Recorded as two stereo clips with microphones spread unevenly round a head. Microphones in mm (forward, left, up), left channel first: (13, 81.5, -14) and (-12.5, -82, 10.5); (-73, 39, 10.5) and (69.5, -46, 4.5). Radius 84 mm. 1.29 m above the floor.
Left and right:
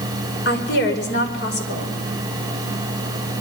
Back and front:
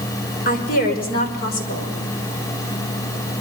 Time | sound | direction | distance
0.5 | a woman speaking | 110° left | 5 m